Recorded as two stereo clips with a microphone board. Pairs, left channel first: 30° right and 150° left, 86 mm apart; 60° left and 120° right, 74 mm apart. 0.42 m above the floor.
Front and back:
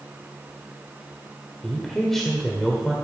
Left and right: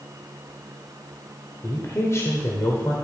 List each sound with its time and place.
1.6 s a man speaking: 55° left, 1.4 m